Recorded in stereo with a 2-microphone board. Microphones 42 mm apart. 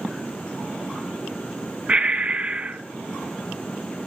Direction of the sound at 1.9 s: 30° right (ahead or behind).